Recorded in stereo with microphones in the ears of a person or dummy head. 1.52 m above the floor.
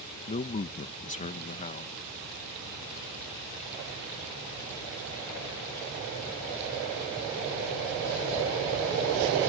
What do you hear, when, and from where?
0.3 s a man speaking: 40° left (ahead or behind)